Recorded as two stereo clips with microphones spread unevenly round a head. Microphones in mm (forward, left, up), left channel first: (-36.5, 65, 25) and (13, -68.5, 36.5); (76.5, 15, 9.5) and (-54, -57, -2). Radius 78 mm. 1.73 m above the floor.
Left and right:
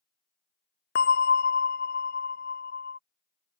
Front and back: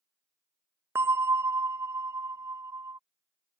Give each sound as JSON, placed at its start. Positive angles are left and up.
{"t": 0.9, "sound": "a bell", "azimuth_deg": 130}